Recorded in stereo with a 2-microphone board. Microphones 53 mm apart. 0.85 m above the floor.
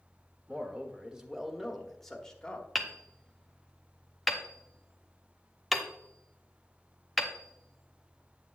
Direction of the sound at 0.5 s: 30° right (ahead or behind).